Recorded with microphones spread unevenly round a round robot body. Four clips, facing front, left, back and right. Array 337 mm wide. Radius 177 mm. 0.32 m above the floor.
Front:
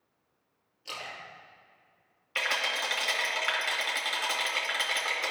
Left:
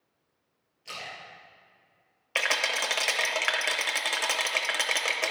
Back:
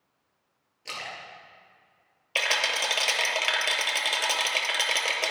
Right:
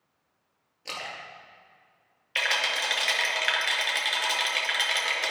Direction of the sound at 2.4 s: 125° left.